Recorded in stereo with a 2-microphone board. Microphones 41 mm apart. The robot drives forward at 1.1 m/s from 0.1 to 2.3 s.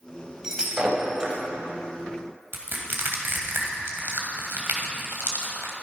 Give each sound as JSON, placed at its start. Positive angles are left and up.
{"t": 0.4, "sound": "breaking glass", "side_deg": -15, "distance_m": 3.5}
{"t": 2.5, "sound": "crushing", "side_deg": -60, "distance_m": 2.5}